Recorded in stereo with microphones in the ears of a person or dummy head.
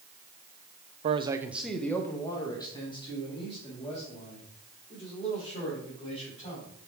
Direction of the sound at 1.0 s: 40° right (ahead or behind).